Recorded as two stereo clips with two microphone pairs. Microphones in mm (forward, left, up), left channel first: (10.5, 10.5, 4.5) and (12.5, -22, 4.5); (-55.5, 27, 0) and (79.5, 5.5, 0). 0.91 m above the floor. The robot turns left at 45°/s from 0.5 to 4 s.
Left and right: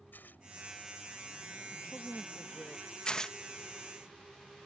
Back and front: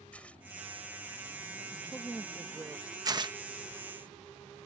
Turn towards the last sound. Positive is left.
turn(degrees=0)